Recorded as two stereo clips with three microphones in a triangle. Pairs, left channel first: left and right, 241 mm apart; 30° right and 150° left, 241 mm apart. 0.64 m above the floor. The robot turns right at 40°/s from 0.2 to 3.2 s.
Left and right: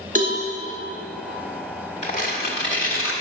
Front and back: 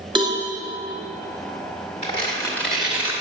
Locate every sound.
0.1 s a cowbell: 140° right, 1.8 m; by 0.4 s 130° right, 1.8 m
2.0 s tearing paper: 30° left, 1.8 m; by 3.1 s 75° left, 1.8 m